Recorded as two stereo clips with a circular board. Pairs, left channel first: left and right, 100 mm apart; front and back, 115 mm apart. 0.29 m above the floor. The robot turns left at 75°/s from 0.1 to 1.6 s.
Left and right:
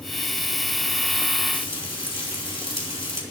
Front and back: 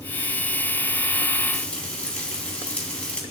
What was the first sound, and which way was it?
Frying, 85° left.